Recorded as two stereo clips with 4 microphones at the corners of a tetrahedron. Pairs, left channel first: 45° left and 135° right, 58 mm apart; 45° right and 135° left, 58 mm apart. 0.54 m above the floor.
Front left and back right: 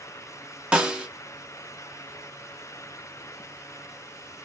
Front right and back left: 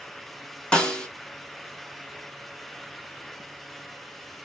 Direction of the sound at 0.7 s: 90° right.